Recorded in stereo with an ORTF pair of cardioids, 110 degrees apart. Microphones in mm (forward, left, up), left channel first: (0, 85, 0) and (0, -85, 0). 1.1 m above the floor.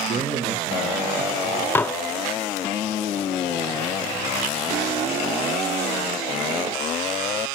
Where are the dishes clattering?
15° left, 0.5 m.